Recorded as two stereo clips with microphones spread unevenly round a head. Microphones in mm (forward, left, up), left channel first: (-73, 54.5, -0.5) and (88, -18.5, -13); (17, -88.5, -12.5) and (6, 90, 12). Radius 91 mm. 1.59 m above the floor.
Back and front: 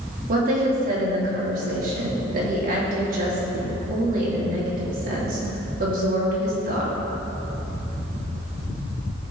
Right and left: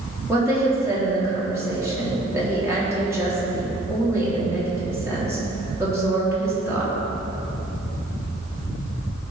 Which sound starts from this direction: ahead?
A woman speaking, at 0.3 s.